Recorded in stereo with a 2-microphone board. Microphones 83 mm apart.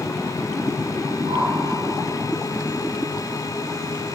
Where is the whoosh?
70° right (ahead or behind), 7 m.